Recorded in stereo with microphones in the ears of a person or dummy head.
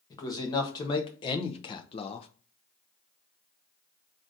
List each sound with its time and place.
0.1 s a man speaking: 20° left (ahead or behind), 1.2 m; by 2.3 s 25° left (ahead or behind), 0.5 m